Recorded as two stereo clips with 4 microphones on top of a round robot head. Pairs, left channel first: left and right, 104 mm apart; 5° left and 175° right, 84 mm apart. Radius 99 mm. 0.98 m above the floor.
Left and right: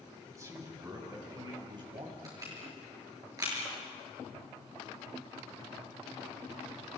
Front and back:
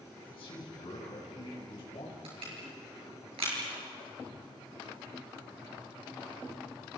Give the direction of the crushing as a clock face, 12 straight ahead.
5 o'clock.